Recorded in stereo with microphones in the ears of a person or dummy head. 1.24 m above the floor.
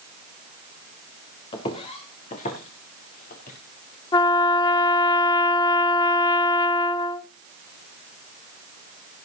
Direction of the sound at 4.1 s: 25° left (ahead or behind).